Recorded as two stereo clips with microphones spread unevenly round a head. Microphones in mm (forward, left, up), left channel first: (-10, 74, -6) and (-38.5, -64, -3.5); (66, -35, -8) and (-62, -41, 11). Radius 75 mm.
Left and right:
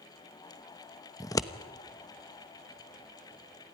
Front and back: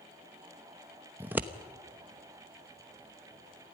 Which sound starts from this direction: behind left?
Scissors, at 1.2 s.